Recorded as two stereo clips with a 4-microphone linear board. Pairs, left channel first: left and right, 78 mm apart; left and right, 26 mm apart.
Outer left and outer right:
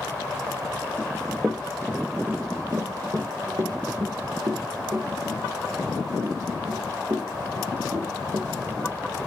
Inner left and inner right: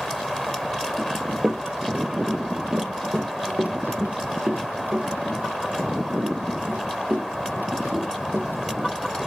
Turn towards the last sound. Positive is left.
turn(degrees=-85)